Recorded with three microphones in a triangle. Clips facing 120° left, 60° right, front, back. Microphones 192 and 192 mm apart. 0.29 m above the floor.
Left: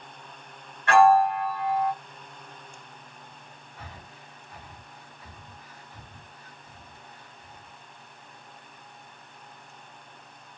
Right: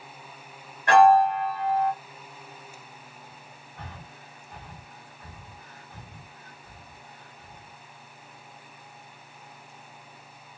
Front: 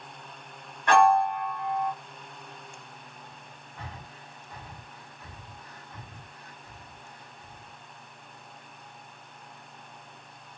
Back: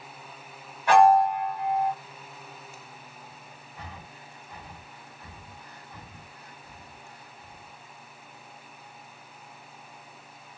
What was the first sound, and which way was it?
A piano, 100° right.